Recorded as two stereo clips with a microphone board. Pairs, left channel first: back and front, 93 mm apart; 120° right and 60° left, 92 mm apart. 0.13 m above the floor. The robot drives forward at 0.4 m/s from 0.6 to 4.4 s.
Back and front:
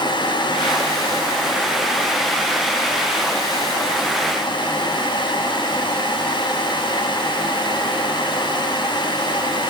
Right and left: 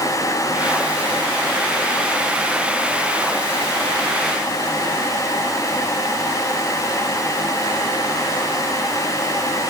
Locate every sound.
Only background noise.